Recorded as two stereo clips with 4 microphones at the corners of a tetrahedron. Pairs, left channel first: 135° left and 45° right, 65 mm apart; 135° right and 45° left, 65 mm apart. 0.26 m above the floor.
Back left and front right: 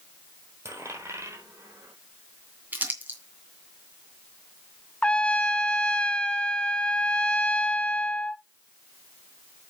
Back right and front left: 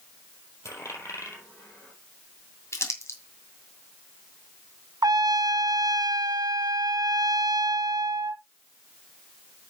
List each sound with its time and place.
0.7 s a dropped coin: 90° right, 4.5 m
2.7 s crumpling: 100° right, 2.5 m
5.0 s a trumpet: 60° left, 0.6 m